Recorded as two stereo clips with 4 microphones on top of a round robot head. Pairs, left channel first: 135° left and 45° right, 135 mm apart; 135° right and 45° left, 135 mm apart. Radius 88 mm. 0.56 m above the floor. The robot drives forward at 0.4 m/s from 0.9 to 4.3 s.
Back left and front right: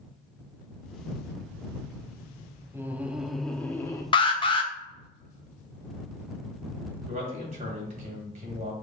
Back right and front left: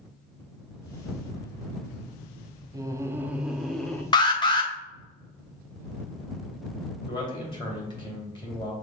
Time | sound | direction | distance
2.7 | laughter | 10° left | 0.7 m
4.1 | an alarm | 175° left | 0.7 m
7.1 | a man speaking | 80° right | 2.0 m